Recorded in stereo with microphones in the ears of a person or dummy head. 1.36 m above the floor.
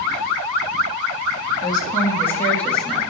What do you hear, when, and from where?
1.6 s a woman speaking: 25° left (ahead or behind), 3 m; by 3.0 s centre (ahead or behind), 3 m